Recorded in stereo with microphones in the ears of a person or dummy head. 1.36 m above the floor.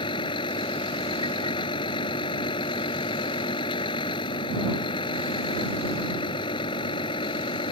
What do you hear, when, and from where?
0.0 s a vehicle: 25° left (ahead or behind)